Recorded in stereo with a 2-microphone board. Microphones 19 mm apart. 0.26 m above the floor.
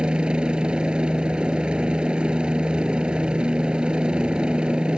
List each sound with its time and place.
0.0 s a helicopter: 65° right (ahead or behind)